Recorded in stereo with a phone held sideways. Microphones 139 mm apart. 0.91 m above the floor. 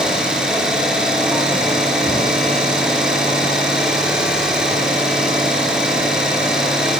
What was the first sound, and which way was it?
An engine running, 5° right (ahead or behind).